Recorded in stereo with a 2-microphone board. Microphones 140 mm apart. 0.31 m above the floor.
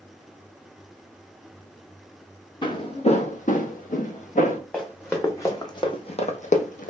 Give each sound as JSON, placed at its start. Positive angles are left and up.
{"t": 2.6, "sound": "footsteps", "side_deg": 30, "distance_m": 0.7}
{"t": 4.7, "sound": "running footsteps", "side_deg": 10, "distance_m": 1.1}